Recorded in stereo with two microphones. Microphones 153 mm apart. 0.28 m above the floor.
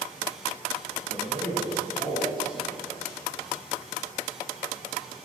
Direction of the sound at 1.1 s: 55° right (ahead or behind).